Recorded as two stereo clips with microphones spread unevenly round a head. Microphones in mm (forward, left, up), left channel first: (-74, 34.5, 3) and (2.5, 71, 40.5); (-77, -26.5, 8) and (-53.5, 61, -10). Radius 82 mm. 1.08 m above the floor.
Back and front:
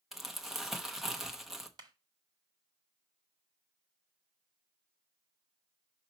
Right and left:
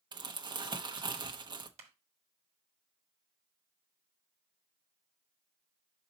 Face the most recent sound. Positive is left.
turn(degrees=60)